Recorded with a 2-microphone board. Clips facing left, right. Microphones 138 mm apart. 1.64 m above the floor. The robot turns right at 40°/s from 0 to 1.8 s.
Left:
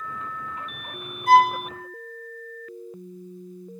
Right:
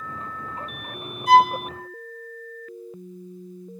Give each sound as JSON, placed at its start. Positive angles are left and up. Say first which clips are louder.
{"t": 1.3, "sound": "a violin", "louder": "right 1 dB", "side_deg": 55, "distance_m": 0.8}